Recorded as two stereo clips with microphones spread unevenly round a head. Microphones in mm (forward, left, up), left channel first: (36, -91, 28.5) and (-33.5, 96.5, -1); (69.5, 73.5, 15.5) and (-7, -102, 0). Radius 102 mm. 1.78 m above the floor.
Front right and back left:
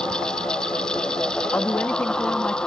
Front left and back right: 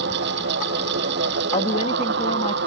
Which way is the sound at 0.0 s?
155° right.